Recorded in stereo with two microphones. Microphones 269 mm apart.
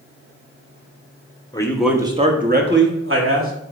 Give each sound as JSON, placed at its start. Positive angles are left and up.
{"t": 1.5, "sound": "a man speaking", "side_deg": 15, "distance_m": 1.0}